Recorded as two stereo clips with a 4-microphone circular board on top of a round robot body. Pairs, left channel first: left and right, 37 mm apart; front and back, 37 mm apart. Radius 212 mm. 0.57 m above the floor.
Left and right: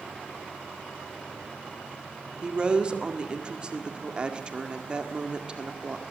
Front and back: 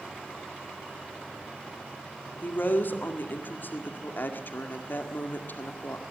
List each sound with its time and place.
2.4 s a woman speaking: 25° right, 2 m